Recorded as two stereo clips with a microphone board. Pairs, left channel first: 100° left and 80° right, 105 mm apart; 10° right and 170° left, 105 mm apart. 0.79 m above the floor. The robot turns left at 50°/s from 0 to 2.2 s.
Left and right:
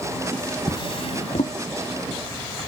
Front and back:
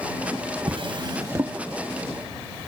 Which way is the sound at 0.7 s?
145° left.